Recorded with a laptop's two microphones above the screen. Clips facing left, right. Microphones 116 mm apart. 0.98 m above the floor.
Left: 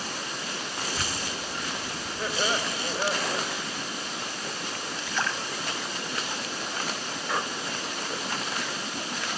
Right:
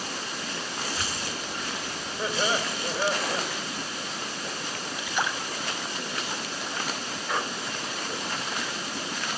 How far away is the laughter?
About 3.5 m.